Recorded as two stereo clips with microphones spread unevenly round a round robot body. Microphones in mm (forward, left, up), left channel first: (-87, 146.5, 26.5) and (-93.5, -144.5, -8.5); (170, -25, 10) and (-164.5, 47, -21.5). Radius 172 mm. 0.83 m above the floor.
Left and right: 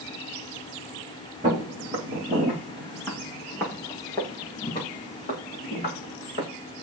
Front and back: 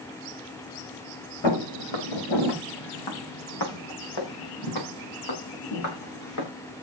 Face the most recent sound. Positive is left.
turn(degrees=25)